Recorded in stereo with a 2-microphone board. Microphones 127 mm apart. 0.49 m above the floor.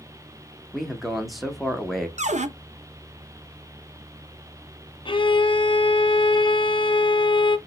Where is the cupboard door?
65° right (ahead or behind), 0.6 m.